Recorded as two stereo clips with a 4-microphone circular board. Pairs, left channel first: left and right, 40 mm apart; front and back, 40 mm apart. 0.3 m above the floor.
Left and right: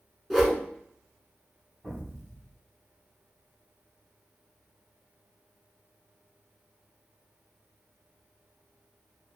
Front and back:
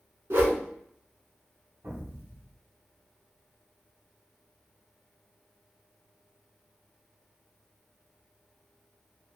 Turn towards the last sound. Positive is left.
turn(degrees=175)